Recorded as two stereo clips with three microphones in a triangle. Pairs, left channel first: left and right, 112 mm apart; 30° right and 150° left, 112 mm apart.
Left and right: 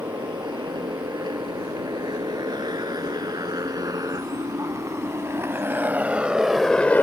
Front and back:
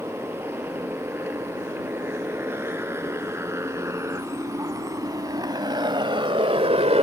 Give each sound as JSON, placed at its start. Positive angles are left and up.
{"t": 0.0, "sound": "a motorcycle", "azimuth_deg": -135}